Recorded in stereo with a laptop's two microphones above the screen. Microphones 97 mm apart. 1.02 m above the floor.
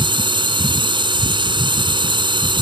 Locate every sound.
0.0 s a drone: 55° right (ahead or behind)